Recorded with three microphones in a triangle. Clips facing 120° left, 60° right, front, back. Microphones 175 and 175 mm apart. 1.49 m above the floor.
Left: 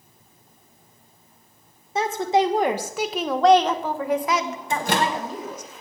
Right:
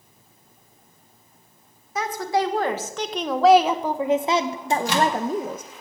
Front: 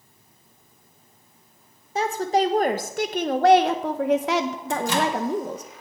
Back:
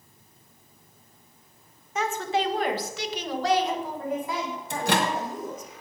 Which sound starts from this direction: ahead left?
A woman speaking, at 1.9 s.